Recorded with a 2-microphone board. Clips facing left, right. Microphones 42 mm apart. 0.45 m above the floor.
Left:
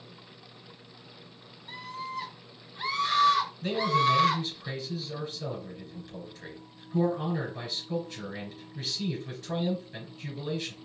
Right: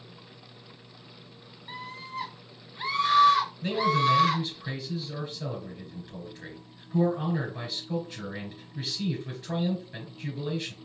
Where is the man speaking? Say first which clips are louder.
Left 1 dB; 15° right (ahead or behind), 3.5 m.